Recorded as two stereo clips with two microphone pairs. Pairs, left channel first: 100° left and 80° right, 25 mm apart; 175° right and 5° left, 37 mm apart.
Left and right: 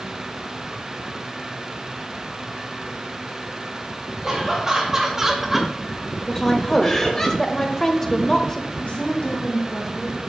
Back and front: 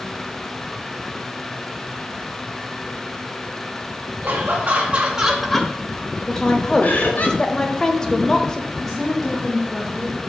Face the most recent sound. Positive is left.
turn(degrees=105)